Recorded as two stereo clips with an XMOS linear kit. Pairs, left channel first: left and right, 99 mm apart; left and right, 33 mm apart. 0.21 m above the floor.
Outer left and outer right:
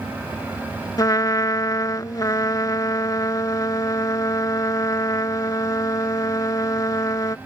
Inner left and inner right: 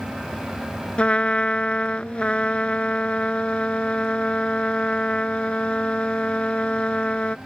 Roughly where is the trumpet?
Left.